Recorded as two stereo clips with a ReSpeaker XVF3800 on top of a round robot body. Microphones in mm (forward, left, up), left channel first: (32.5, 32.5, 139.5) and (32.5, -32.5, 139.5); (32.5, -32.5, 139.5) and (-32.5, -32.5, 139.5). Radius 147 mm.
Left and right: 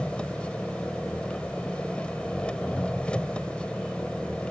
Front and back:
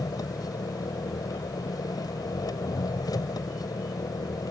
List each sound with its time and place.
0.0 s an engine running: 15° left